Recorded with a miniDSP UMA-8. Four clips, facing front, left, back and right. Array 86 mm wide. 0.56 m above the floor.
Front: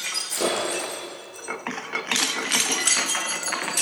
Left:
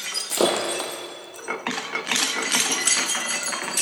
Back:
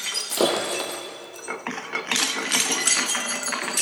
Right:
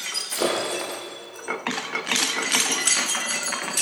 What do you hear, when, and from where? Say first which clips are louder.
0.2 s breaking glass: left 3 dB, back 3 dB; 125° left, 4.5 m